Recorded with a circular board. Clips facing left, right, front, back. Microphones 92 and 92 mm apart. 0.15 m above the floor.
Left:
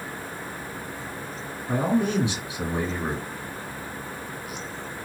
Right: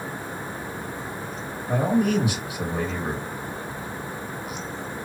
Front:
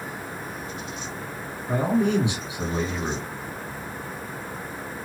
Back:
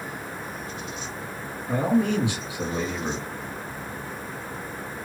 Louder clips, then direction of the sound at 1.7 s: Right 2 dB, even; 50° left.